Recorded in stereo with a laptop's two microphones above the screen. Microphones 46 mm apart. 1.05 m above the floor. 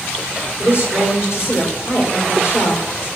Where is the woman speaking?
60° left (ahead or behind), 3 m.